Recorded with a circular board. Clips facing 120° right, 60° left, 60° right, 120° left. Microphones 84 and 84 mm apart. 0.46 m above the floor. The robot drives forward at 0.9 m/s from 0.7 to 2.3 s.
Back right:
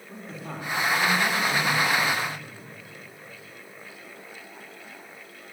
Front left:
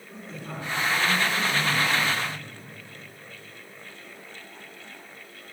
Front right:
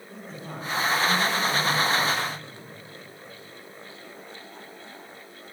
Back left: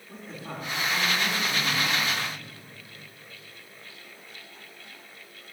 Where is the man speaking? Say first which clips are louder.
Back right 1 dB, even; 155° right, 4 m; by 2.4 s 160° right, 5.5 m.